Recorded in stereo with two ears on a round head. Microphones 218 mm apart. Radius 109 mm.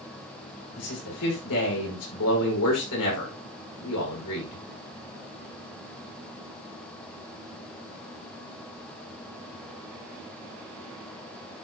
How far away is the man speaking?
About 7 m.